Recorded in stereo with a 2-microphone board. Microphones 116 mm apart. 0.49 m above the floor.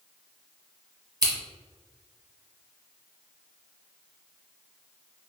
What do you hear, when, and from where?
1.2 s scissors: 40° right (ahead or behind), 1.1 m